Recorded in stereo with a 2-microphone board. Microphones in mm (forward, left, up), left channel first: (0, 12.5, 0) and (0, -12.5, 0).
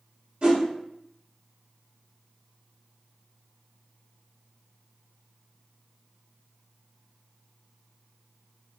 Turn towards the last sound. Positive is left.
turn(degrees=-45)  # may be behind; listen again after turning